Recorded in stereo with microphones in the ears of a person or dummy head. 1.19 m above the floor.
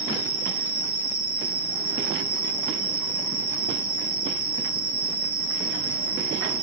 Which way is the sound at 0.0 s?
55° right (ahead or behind).